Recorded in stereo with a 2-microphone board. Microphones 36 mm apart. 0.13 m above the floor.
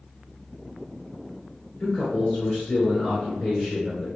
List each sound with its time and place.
1.8 s a man speaking: 20° left (ahead or behind), 1.6 m